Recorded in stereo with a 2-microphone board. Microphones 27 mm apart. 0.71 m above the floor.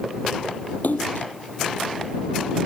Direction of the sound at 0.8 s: 85° left.